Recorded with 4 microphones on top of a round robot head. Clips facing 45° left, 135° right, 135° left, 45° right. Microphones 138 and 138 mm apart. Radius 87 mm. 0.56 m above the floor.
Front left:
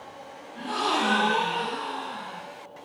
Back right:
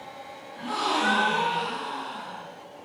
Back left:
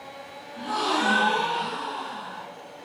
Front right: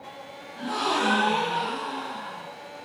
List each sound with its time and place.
0.6 s a gasp: 15° left, 1.3 m